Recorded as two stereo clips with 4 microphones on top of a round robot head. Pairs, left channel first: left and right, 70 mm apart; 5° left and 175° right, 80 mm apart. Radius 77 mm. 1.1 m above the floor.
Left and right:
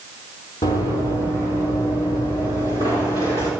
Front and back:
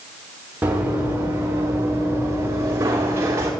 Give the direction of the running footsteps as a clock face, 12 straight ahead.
8 o'clock.